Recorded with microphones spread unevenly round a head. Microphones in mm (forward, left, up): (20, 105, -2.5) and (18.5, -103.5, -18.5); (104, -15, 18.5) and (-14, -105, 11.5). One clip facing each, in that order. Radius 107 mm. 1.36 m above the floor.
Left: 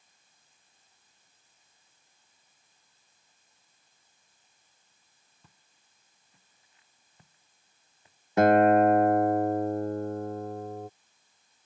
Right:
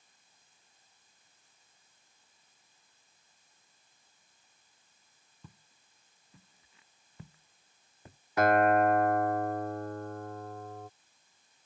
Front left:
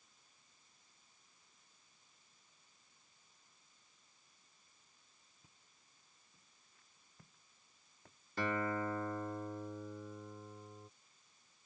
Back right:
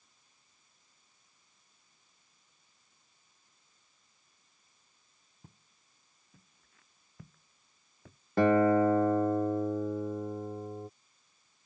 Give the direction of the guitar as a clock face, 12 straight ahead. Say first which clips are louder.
Left 5 dB, back right 14 dB; 7 o'clock.